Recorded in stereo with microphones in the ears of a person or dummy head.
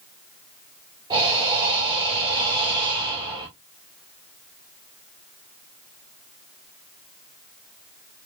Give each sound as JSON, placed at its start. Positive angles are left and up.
{"t": 1.1, "sound": "breathing", "side_deg": -25, "distance_m": 2.5}